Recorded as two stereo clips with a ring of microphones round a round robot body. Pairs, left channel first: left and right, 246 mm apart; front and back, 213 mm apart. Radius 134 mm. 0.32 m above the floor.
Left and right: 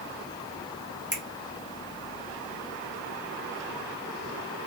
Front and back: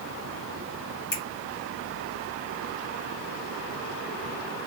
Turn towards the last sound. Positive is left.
turn(degrees=-40)